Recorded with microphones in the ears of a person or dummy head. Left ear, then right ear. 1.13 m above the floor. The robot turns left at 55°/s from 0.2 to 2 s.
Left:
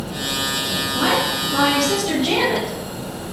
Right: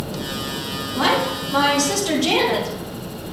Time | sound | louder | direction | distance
0.9 | a woman speaking | right 1 dB | 70° right | 2.5 m